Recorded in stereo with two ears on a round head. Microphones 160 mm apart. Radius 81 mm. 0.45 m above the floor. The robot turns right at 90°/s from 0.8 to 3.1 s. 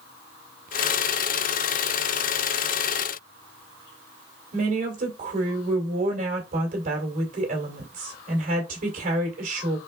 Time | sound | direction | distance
4.5 | a woman speaking | 50° right (ahead or behind) | 2 m